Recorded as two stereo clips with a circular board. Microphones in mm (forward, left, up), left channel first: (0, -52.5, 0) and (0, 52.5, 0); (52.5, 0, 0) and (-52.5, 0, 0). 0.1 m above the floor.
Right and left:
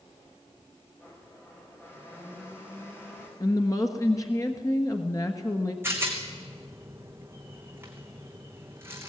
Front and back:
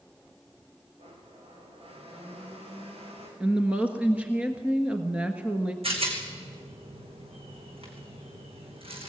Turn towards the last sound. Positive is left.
turn(degrees=155)